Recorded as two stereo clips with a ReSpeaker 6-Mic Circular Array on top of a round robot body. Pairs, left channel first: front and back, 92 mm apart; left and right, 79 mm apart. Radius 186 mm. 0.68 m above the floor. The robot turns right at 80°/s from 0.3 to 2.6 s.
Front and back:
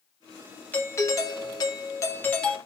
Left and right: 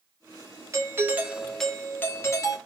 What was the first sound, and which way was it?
A doorbell, 65° right.